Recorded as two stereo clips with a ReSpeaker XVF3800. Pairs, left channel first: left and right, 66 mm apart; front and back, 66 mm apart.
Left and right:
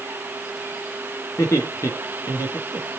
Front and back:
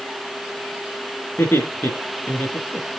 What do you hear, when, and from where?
1.4 s laughter: 55° left, 4 m